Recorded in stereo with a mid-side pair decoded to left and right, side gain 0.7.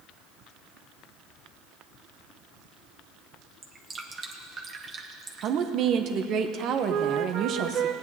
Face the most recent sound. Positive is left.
turn(degrees=-45)